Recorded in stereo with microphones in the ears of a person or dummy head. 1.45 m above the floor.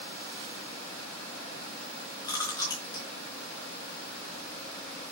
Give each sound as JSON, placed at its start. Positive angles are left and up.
{"t": 2.2, "sound": "chewing", "side_deg": 20, "distance_m": 4.0}